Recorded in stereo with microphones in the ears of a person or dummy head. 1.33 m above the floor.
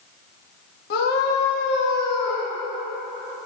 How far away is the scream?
About 1.6 m.